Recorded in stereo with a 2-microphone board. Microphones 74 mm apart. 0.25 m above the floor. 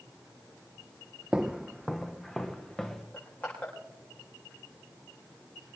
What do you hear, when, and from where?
1.3 s footsteps: 10° right (ahead or behind), 0.8 m; by 3.0 s 10° left (ahead or behind), 2.5 m
3.1 s crushing: 20° left (ahead or behind), 9.5 m